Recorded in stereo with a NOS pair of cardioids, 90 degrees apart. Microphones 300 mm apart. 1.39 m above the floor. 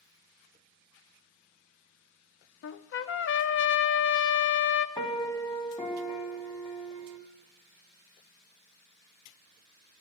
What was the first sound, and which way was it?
A trumpet, 45° left.